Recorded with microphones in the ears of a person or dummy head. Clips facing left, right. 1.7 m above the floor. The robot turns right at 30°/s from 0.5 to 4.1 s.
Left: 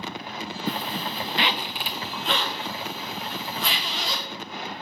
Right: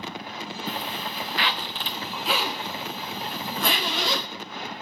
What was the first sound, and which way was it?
A zipper, 140° left.